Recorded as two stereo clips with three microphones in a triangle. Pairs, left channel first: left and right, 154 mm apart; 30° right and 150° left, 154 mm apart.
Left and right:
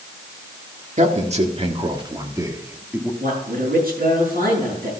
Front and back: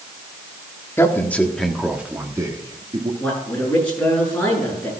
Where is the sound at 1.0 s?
100° right, 1.6 m; by 3.1 s 170° right, 1.5 m.